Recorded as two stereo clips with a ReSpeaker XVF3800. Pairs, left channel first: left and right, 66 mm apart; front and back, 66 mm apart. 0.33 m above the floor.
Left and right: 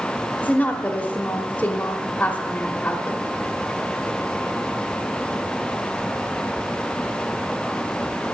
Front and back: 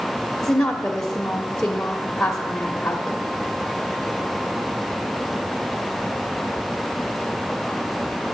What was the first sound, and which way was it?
A woman speaking, 65° left.